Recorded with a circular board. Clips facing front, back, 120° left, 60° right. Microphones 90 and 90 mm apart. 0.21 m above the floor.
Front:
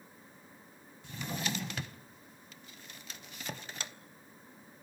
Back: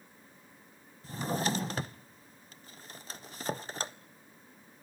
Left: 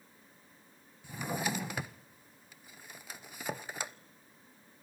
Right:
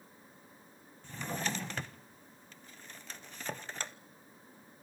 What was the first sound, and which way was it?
A drawer, 165° right.